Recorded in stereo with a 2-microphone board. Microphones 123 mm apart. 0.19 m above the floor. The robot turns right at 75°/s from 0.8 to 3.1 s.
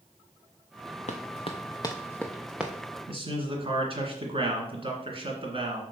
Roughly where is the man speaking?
Right.